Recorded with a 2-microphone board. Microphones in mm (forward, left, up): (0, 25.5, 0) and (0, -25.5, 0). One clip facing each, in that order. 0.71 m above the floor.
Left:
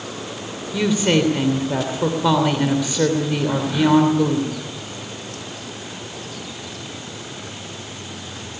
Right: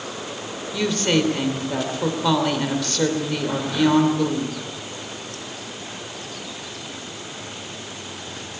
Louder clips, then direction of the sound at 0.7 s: Left 3 dB; 10° left (ahead or behind).